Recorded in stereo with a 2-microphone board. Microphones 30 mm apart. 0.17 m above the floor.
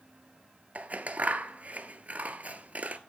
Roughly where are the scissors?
Right.